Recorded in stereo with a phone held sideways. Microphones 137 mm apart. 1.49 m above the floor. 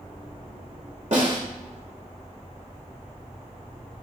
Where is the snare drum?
65° right (ahead or behind), 2.5 m.